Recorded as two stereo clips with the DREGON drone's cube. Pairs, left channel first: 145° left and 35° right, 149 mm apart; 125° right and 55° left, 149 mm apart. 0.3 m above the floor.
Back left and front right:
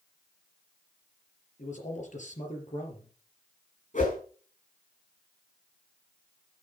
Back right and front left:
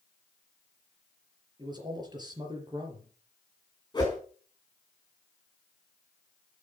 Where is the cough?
No cough in this recording.